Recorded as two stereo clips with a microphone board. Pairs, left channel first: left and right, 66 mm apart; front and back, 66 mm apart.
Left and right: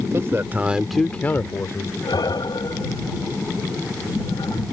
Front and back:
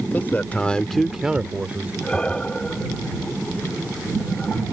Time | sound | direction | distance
0.1 | a man speaking | 55° right | ?
2.0 | breathing | 75° left | ?